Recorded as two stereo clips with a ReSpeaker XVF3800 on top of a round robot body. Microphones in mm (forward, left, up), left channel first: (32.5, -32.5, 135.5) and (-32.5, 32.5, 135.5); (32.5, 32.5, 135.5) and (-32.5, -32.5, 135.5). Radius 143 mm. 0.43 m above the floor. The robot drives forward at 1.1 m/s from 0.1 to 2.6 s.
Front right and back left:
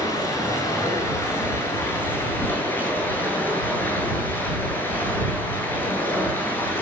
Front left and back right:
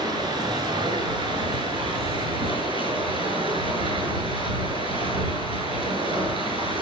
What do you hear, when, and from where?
0.0 s running water: 95° right, 8.5 m; by 6.8 s 115° right, 9.5 m